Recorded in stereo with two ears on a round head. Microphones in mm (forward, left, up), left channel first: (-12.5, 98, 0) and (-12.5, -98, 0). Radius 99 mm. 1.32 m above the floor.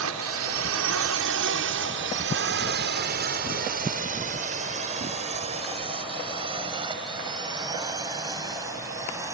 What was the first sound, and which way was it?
A drone, 75° right (ahead or behind).